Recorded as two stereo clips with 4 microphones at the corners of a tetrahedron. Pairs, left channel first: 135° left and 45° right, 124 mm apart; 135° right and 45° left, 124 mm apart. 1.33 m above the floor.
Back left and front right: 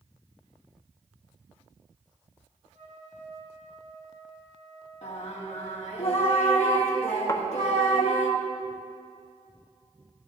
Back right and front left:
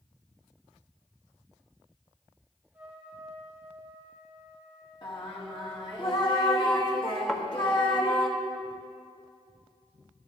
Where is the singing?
170° left, 1.7 m.